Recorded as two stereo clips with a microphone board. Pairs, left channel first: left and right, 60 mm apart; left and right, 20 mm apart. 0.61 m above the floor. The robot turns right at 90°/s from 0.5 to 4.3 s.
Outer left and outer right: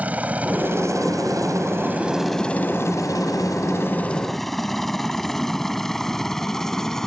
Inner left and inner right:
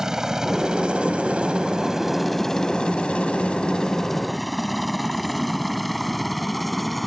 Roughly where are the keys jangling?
No keys jangling in this recording.